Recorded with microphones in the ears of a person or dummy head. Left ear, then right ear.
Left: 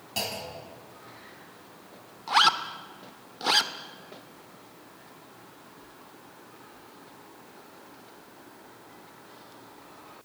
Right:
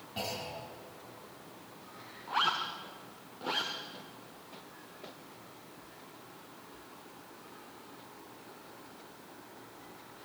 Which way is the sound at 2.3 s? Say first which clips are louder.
Left 9 dB; 50° left (ahead or behind).